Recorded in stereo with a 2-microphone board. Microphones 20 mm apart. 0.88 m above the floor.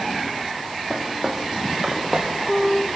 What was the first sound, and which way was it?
Footsteps, 15° right (ahead or behind).